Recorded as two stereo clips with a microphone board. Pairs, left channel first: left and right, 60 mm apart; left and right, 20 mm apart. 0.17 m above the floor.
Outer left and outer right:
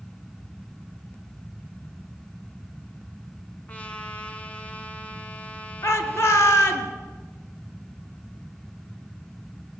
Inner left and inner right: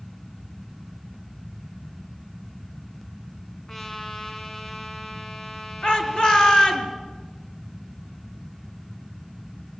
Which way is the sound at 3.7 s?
25° left (ahead or behind).